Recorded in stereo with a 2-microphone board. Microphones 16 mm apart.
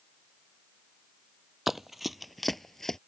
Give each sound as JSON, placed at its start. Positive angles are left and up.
{"t": 1.7, "sound": "running footsteps", "side_deg": -20}